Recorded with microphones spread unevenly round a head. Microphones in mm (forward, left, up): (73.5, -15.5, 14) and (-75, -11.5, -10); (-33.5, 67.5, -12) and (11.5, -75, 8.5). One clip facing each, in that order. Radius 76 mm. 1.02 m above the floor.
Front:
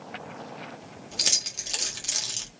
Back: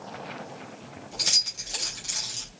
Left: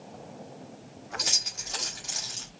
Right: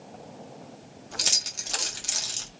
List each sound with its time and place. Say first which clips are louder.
1.1 s keys jangling: front 1 dB, left 1 dB; 20° right, 1.4 m